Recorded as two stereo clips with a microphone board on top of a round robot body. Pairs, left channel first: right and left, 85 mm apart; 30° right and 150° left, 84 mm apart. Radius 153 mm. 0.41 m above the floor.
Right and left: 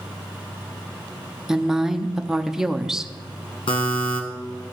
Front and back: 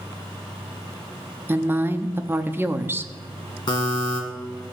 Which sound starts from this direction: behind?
A woman speaking, at 1.5 s.